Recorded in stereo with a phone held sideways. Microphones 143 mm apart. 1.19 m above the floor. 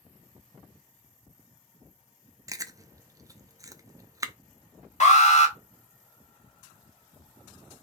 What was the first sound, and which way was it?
Chewing, 25° right (ahead or behind).